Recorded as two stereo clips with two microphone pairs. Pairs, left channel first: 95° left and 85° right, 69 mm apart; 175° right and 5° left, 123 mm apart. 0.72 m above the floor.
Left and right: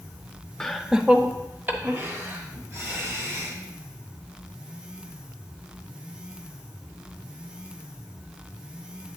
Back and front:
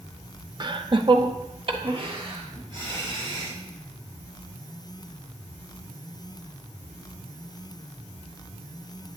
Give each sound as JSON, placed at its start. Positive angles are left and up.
{"t": 0.6, "sound": "laughter", "azimuth_deg": 20, "distance_m": 0.6}